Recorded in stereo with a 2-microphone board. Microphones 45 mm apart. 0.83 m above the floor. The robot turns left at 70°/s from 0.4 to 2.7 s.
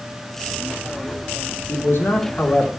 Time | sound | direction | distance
1.7 | a man speaking | 95° left | 2 m